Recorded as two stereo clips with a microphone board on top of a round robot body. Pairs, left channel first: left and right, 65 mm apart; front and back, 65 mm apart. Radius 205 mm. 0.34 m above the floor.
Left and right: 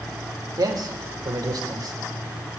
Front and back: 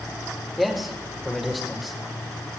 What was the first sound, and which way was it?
A man speaking, 90° right.